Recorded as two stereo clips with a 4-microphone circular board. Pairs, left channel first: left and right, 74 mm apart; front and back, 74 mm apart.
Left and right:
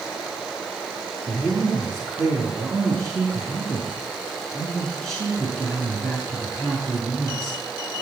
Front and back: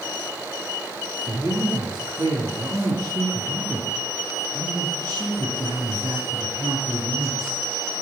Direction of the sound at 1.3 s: 140° right.